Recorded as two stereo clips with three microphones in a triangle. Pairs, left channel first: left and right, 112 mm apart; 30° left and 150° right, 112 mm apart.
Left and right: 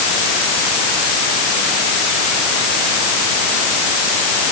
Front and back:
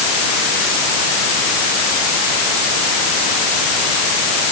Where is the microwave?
I don't hear a microwave.